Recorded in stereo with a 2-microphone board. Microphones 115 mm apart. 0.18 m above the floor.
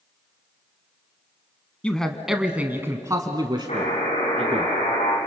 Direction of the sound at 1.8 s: 10° left (ahead or behind).